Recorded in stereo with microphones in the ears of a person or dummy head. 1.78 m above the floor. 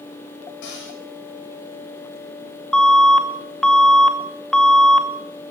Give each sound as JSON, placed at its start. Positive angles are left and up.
{"t": 0.6, "sound": "a cupboard door", "side_deg": 65, "distance_m": 8.0}
{"t": 2.7, "sound": "an alarm", "side_deg": 5, "distance_m": 2.5}